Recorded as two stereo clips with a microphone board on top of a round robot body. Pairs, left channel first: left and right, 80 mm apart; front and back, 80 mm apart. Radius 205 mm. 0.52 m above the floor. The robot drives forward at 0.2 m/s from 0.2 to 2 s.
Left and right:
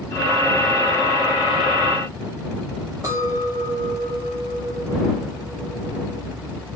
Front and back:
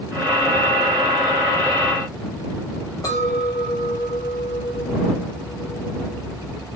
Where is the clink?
45° right, 1.4 m.